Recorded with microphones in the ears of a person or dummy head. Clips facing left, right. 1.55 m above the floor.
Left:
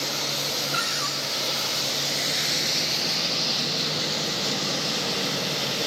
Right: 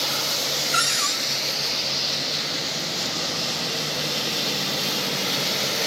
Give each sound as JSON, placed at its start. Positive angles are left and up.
{"t": 0.7, "sound": "a cupboard door", "side_deg": -55, "distance_m": 6.0}